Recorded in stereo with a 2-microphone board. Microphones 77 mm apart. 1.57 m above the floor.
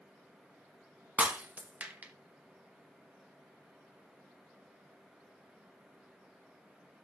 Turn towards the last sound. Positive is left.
turn(degrees=-20)  # may be behind; listen again after turning